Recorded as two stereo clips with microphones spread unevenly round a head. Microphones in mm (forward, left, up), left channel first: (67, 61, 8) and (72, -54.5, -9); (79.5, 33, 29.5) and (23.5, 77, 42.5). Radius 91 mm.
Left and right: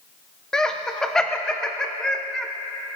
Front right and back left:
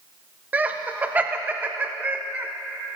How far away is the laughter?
About 0.5 m.